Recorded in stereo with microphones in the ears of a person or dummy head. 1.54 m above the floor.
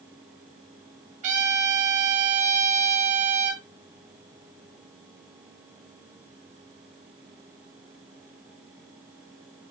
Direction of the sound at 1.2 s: 40° right (ahead or behind).